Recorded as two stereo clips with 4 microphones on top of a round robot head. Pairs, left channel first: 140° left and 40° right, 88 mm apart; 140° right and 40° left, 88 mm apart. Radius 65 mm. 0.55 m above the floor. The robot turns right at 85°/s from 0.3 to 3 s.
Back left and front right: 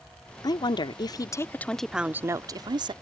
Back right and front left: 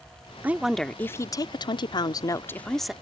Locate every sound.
0.4 s a woman speaking: 105° left; by 2.9 s 40° right